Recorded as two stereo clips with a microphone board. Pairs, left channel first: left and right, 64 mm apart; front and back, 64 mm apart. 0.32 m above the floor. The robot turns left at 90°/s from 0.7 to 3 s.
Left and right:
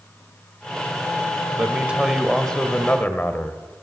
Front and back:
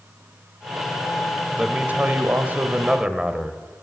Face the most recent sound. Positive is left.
turn(degrees=115)